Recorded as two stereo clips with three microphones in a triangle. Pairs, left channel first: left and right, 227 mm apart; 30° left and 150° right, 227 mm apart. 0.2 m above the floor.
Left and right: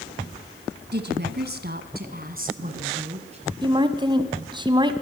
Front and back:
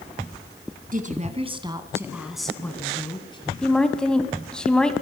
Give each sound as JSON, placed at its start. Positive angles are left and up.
{"t": 0.9, "sound": "a woman speaking", "azimuth_deg": -110, "distance_m": 2.0}
{"t": 3.6, "sound": "a woman speaking", "azimuth_deg": -50, "distance_m": 1.5}